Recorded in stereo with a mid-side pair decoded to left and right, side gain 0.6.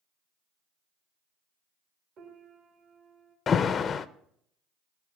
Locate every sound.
2.2 s a piano: 55° right, 2.5 m
3.5 s an alarm: 40° left, 0.5 m